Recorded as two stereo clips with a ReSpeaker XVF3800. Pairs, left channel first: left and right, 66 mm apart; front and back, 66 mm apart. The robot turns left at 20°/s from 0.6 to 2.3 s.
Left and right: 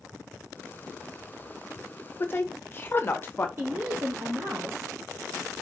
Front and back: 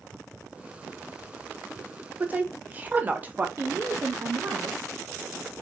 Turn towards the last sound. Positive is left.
turn(degrees=-130)